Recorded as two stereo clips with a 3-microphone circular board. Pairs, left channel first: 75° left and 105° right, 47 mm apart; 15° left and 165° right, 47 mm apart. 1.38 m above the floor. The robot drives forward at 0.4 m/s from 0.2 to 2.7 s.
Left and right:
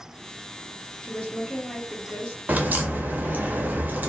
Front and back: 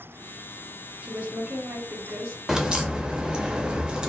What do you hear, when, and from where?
1.0 s a woman speaking: 135° left, 0.6 m; by 2.4 s 160° left, 1.0 m
2.5 s a crack: 95° right, 0.5 m; by 4.1 s 105° right, 0.5 m